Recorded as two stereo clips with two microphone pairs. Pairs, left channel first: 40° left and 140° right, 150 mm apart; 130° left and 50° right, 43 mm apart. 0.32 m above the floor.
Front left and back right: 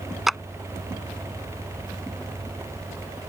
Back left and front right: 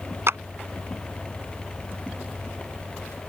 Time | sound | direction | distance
0.3 | a clap | 50° right | ?